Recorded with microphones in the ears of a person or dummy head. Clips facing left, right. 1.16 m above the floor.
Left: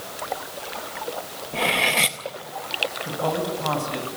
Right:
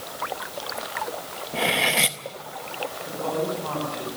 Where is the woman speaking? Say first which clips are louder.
Left 1 dB; 65° left (ahead or behind), 7.5 m.